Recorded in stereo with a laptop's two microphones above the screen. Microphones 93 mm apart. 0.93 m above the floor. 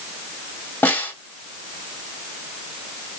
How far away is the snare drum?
About 3 m.